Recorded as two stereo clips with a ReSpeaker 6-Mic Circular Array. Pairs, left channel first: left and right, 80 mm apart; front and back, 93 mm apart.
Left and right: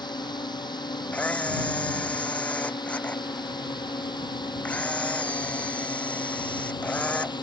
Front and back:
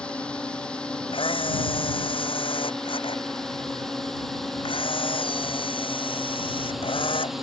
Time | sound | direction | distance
0.0 | a drone | 80° left | ?
1.1 | a camera shutter | 20° left | ?